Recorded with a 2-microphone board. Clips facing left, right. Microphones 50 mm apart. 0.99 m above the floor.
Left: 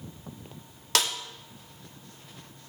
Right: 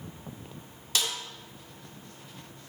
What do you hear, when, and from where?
0.9 s a snare drum: 65° left (ahead or behind), 2 m